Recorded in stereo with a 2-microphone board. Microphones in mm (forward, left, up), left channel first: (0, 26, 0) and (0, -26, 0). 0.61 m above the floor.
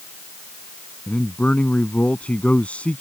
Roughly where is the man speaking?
Left.